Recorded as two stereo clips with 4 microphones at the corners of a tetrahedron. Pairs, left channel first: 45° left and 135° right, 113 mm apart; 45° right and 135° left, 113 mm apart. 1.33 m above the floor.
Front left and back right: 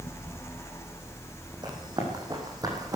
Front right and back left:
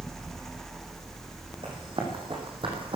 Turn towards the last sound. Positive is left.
turn(degrees=170)